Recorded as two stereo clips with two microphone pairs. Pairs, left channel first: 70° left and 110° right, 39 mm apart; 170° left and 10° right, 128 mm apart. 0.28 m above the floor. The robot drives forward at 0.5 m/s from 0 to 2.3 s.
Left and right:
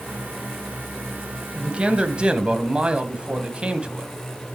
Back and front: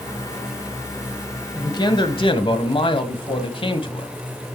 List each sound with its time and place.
1.6 s a man speaking: 150° right, 1.2 m; by 4.1 s 160° right, 1.4 m